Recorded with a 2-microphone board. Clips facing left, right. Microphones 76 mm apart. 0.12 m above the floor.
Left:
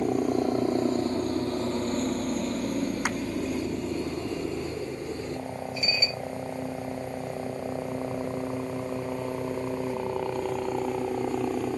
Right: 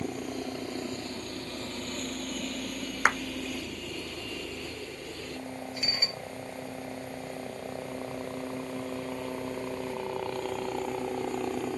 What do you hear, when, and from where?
0.0 s a helicopter: 35° left (ahead or behind); by 11.8 s 5° left (ahead or behind)
3.0 s a clap: 60° right (ahead or behind)
5.8 s dishes clattering: 50° right (ahead or behind)